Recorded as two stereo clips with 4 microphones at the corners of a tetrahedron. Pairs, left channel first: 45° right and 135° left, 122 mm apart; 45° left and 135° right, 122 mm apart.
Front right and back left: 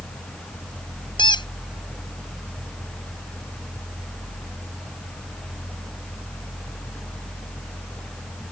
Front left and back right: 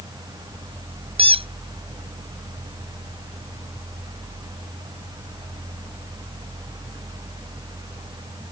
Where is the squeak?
95° right.